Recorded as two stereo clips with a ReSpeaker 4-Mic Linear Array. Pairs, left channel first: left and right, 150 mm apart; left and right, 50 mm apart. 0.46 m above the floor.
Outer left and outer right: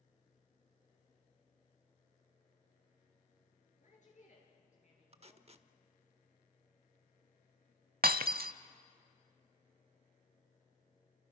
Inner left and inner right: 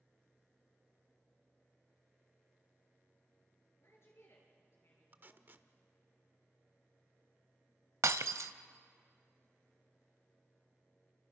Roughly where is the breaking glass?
Right.